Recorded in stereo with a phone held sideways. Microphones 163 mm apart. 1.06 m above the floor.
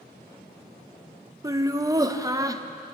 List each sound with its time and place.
1.4 s laughter: 20° right (ahead or behind), 0.7 m